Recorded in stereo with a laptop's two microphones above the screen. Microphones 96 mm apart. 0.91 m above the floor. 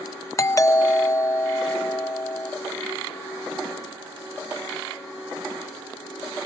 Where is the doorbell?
30° left (ahead or behind).